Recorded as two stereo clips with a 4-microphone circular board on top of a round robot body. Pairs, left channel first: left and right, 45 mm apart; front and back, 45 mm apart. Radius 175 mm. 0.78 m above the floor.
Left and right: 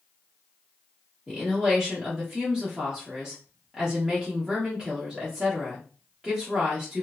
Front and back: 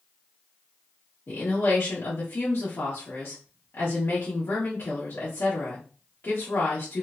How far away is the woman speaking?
About 1.2 m.